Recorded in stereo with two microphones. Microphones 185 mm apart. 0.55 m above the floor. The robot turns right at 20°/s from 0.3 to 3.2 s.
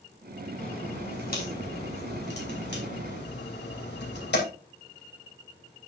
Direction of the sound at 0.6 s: 40° left (ahead or behind).